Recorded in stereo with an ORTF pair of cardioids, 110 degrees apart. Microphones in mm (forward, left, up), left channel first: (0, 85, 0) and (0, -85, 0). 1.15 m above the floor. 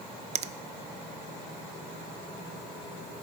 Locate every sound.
0.3 s a finger snap: 40° right, 0.5 m